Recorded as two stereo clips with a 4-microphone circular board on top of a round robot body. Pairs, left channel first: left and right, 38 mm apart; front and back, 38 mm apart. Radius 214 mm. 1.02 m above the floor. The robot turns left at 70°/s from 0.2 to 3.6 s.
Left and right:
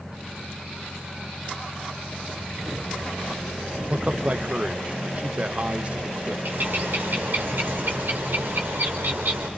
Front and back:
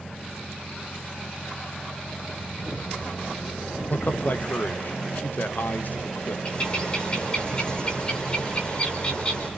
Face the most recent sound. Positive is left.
turn(degrees=-60)